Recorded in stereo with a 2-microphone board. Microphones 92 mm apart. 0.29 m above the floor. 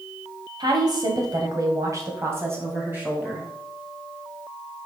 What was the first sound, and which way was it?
A woman speaking, 50° right (ahead or behind).